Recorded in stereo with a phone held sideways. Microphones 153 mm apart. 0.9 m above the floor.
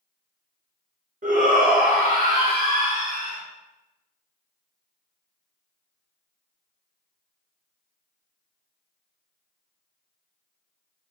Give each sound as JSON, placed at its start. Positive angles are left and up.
{"t": 1.2, "sound": "a shout", "side_deg": -60, "distance_m": 1.1}